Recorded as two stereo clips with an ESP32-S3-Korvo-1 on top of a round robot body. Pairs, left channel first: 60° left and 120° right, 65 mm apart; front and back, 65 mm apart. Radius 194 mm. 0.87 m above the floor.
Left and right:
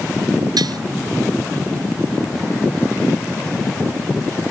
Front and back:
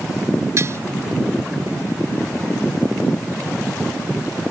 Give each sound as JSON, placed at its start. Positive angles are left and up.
{"t": 0.6, "sound": "dishes clattering", "azimuth_deg": -130}